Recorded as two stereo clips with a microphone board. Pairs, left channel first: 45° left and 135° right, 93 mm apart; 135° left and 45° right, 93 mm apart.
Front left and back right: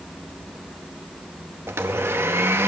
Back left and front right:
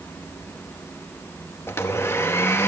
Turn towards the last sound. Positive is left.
turn(degrees=180)